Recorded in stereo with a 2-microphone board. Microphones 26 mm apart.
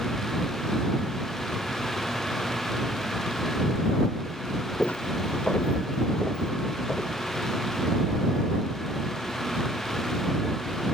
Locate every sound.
4.8 s footsteps: 70° left (ahead or behind); by 7.2 s 25° left (ahead or behind)